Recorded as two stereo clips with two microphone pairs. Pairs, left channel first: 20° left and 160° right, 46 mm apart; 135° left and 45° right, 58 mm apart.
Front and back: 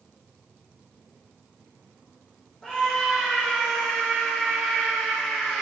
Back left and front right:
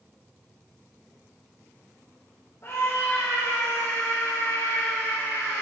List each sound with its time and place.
2.6 s a scream: 95° left, 5 m; by 5.6 s 85° left, 6.5 m